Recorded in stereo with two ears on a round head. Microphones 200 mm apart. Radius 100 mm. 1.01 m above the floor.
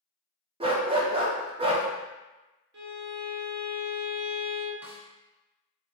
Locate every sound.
0.6 s a dog barking: 25° right (ahead or behind), 0.7 m
2.7 s a violin: 50° right (ahead or behind), 0.8 m
4.8 s a snare drum: 10° right (ahead or behind), 0.7 m